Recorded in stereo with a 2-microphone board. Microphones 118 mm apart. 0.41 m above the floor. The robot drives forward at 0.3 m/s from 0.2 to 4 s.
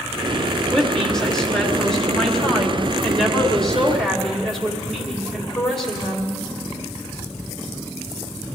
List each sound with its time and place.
0.7 s a woman speaking: 5° left (ahead or behind), 1.5 m